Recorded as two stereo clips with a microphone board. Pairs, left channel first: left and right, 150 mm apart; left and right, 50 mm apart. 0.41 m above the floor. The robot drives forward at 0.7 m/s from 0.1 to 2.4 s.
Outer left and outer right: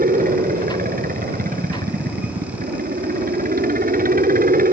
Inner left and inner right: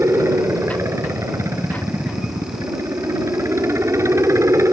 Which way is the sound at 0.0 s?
65° right (ahead or behind).